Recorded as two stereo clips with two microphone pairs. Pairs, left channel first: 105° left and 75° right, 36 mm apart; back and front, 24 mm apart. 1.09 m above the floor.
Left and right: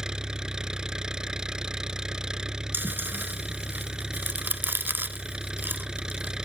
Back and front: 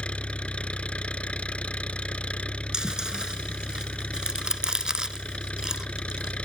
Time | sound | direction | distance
0.0 | an engine running | 145° right | ?
2.7 | chewing | 55° right | ?